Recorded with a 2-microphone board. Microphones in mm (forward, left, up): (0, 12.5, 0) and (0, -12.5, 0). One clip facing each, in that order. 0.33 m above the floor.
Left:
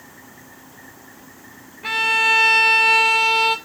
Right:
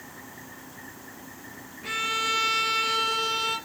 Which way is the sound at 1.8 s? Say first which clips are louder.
Left 10 dB; 70° left (ahead or behind).